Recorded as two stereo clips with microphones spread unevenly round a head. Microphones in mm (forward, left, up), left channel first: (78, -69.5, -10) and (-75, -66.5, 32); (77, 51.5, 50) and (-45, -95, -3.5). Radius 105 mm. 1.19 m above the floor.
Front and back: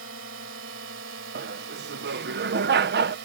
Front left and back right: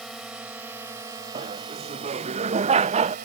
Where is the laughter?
170° right.